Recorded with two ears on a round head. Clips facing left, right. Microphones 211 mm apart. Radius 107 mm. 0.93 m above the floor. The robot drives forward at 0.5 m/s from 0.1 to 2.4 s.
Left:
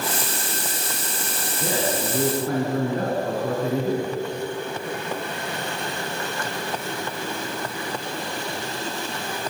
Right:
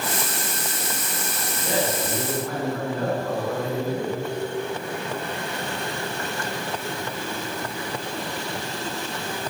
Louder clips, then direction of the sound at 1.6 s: Even; 30° left (ahead or behind).